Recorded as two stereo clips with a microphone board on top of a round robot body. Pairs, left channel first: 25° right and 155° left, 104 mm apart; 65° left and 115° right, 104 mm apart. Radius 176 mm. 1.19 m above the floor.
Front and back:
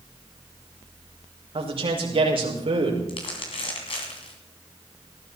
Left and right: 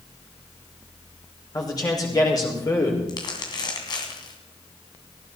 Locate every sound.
1.5 s a man speaking: 120° left, 5.5 m
3.1 s crumpling: 15° left, 2.5 m